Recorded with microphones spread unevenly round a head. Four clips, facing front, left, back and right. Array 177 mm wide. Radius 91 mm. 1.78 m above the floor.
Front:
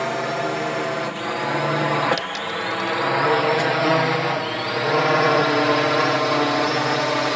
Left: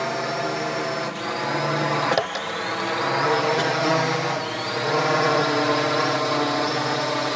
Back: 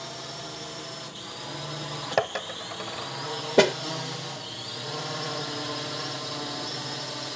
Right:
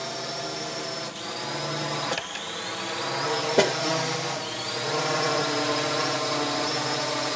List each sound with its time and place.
0.0 s a drone: 25° left; by 7.4 s 15° left
2.2 s a dropped coin: 125° left
3.6 s a snare drum: 150° right